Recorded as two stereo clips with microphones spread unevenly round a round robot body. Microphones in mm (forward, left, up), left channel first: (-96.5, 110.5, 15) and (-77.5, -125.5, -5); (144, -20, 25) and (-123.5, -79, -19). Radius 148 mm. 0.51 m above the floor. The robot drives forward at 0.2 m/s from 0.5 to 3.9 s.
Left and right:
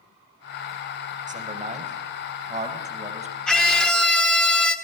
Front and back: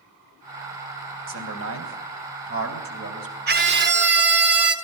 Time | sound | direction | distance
1.3 | a man speaking | 140° right | 3.5 m
3.5 | a scream | 175° right | 1.5 m